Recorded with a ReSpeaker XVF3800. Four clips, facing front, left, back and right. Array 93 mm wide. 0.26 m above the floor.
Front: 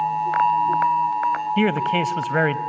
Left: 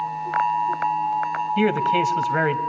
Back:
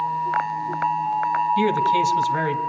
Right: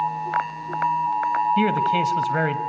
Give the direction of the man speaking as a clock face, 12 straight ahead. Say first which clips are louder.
Even, back 1 dB; 12 o'clock.